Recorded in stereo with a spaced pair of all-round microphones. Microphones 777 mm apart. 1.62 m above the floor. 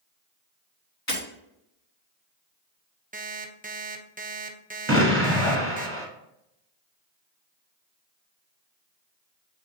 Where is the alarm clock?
10° right (ahead or behind), 0.7 m.